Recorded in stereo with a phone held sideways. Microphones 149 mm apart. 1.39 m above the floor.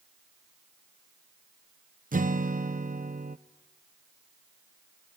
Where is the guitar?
65° right (ahead or behind), 0.7 m.